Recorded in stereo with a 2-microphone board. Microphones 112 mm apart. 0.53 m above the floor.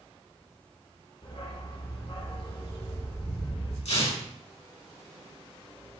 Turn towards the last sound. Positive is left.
turn(degrees=80)